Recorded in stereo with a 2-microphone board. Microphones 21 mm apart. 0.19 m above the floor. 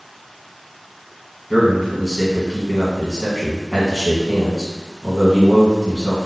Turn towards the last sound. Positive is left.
turn(degrees=25)  # may be behind; listen again after turning